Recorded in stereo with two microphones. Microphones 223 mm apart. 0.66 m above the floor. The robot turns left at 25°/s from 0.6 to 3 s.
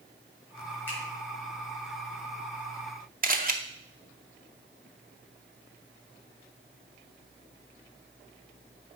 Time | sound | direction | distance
0.9 | a finger snap | 10° left (ahead or behind) | 4.5 m
3.2 | a camera shutter | 40° right (ahead or behind) | 0.7 m